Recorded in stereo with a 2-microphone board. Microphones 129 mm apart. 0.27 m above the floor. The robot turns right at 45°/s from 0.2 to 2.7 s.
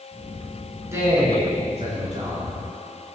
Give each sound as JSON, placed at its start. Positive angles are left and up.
{"t": 0.9, "sound": "a man speaking", "azimuth_deg": -155, "distance_m": 4.5}